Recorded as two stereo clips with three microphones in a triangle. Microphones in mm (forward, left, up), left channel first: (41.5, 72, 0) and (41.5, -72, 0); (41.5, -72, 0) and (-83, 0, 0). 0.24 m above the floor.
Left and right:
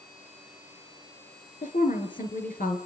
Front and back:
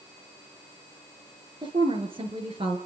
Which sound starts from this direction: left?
A woman speaking, at 1.6 s.